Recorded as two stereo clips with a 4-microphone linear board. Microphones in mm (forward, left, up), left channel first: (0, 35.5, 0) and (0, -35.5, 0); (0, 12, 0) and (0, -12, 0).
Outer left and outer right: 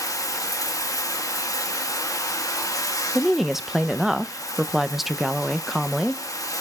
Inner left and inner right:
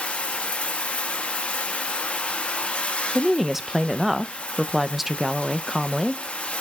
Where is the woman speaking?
5° right (ahead or behind), 0.6 m.